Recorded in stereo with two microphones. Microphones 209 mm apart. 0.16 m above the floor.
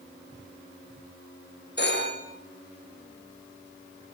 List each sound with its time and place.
1.8 s a phone ringing: 50° left (ahead or behind), 6 m